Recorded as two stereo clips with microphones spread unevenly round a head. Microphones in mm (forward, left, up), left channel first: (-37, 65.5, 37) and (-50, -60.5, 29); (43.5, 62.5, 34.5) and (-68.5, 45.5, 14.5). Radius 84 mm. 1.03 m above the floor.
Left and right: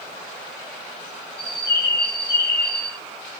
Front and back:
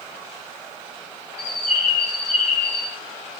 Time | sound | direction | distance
1.4 | a bird | straight ahead | 2.5 m